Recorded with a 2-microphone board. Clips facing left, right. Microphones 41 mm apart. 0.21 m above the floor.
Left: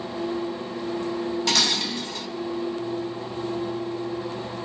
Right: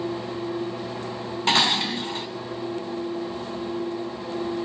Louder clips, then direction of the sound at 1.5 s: Right 6 dB; 30° right (ahead or behind).